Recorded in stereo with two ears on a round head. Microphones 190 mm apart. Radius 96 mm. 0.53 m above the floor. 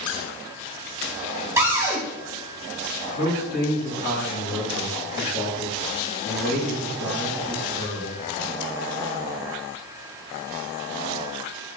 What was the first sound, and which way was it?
A cupboard door, 10° right (ahead or behind).